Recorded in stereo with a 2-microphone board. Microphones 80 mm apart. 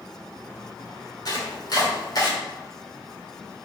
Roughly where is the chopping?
Left.